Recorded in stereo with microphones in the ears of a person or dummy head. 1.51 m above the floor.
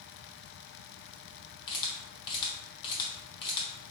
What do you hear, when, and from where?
1.7 s a camera shutter: 25° left (ahead or behind), 1.0 m